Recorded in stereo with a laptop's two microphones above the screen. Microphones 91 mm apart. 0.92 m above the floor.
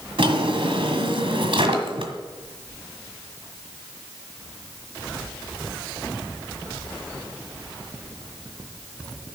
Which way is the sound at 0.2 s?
75° right (ahead or behind).